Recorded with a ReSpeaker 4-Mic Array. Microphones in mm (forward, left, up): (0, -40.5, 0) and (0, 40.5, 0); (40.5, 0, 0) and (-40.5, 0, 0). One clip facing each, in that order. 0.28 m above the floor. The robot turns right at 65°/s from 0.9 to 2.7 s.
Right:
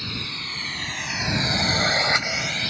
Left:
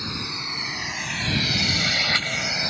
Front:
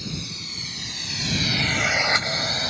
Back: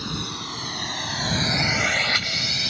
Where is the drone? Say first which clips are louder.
Left 2 dB, back 4 dB; 155° left; by 2.7 s 35° left.